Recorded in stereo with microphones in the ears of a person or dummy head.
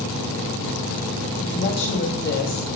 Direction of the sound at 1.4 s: 50° left (ahead or behind).